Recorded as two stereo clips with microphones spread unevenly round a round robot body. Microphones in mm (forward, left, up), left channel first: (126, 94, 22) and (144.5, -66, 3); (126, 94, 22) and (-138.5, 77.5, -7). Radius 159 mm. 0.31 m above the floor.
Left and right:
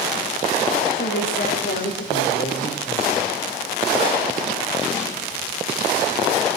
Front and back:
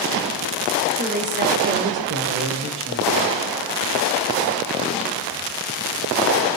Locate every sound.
0.9 s a woman speaking: 130° left, 7 m; by 3.3 s 150° left, 9 m